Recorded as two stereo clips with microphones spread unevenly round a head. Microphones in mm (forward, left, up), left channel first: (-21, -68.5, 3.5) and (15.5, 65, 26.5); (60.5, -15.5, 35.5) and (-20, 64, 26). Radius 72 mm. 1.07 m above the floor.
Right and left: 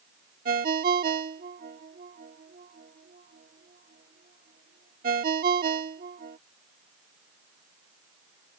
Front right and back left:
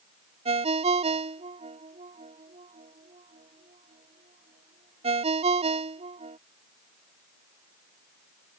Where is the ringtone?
105° left.